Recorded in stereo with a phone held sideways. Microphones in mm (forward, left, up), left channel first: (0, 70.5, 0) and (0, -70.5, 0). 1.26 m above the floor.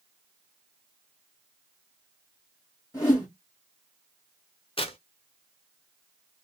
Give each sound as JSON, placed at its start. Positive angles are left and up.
{"t": 2.9, "sound": "a whoosh", "side_deg": 25, "distance_m": 1.6}
{"t": 4.8, "sound": "tearing paper", "side_deg": 40, "distance_m": 0.6}